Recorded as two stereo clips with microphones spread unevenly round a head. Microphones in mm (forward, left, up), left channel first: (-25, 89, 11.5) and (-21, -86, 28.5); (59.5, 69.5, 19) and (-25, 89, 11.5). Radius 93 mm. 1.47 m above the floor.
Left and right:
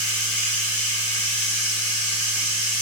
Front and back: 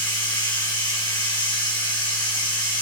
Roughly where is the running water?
Ahead.